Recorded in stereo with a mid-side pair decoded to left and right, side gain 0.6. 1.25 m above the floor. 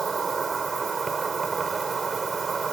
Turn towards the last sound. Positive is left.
turn(degrees=-30)